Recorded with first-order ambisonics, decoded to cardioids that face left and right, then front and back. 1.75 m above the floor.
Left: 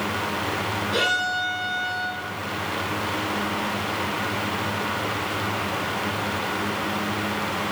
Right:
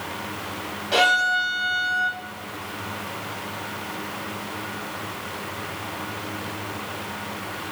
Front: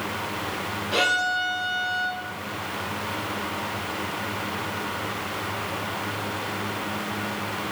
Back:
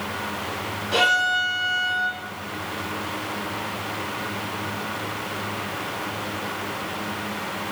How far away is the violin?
About 7 m.